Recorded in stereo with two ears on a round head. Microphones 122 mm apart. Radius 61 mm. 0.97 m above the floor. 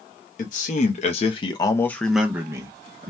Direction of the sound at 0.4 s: 60° left (ahead or behind).